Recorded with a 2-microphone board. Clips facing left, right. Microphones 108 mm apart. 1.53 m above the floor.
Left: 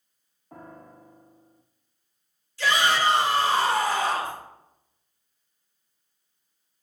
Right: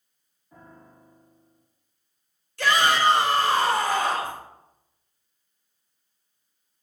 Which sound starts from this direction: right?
A shout, at 2.6 s.